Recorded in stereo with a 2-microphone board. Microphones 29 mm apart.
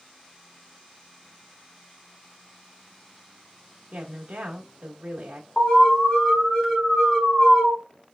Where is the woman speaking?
80° right, 1.3 m.